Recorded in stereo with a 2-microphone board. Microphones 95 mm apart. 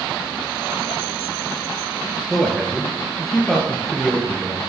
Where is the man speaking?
Centre (ahead or behind), 1.5 m.